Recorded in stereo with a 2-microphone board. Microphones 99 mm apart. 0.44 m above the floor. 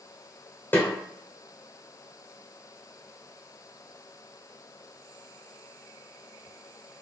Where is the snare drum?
25° left (ahead or behind), 1.9 m.